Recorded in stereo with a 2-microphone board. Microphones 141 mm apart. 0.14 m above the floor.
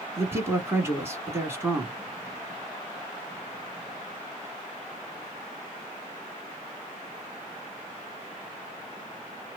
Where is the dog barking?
I don't hear a dog barking.